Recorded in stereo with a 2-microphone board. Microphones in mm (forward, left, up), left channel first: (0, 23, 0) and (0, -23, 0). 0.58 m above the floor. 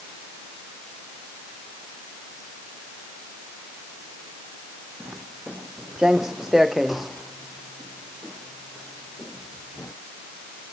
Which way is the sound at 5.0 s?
30° right (ahead or behind).